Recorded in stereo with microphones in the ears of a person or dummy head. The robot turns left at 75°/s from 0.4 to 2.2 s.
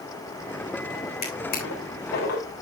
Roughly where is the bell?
No bell in this recording.